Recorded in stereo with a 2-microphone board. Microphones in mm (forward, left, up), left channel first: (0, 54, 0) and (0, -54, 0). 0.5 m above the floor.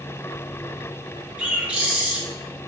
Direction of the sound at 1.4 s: 10° right (ahead or behind).